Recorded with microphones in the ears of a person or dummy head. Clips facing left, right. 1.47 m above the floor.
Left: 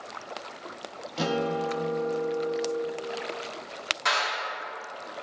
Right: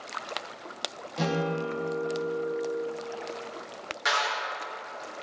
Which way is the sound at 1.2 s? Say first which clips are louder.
Left 1 dB; 5° left (ahead or behind).